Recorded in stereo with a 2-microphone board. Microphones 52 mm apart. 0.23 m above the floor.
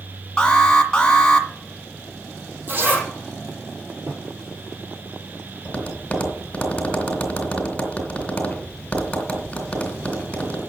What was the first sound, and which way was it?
An alarm, 15° left (ahead or behind).